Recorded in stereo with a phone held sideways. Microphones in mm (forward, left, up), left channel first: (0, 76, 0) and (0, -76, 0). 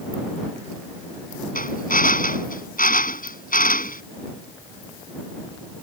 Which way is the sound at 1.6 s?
70° left (ahead or behind).